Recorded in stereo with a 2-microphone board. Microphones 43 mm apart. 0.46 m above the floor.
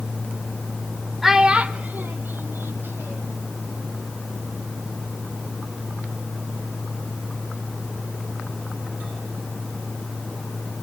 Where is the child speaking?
10° right (ahead or behind), 0.9 m; by 3.4 s 75° right (ahead or behind), 2.5 m.